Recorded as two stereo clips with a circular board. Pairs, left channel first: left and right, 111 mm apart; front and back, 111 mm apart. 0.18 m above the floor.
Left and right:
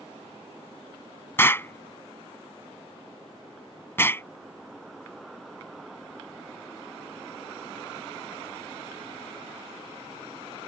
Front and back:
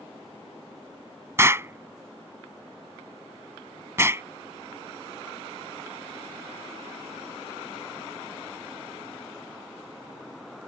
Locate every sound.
1.4 s an explosion: 140° left